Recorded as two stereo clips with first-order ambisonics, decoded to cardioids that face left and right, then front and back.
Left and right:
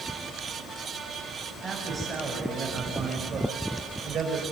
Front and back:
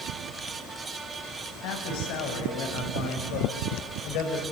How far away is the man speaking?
About 6.5 m.